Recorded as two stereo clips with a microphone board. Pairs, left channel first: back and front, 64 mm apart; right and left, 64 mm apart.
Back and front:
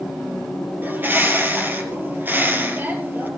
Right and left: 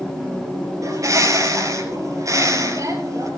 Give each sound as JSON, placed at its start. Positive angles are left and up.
{"t": 0.8, "sound": "a bird", "azimuth_deg": 60, "distance_m": 3.0}